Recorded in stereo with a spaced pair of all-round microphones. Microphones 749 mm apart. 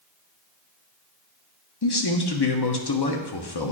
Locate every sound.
1.8 s a man speaking: 35° left (ahead or behind), 0.8 m